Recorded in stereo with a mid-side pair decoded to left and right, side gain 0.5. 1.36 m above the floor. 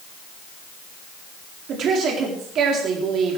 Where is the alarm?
I don't hear an alarm.